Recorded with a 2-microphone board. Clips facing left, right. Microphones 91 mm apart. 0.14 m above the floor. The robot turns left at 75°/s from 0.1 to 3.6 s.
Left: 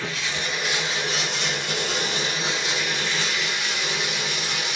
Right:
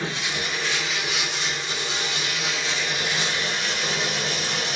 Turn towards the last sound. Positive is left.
turn(degrees=-55)